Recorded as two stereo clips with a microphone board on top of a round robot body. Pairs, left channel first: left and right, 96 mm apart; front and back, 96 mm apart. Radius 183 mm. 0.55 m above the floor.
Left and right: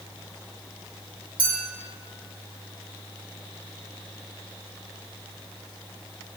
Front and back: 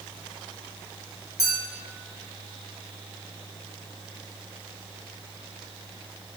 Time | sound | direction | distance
1.4 | a clink | 55° right | 1.3 m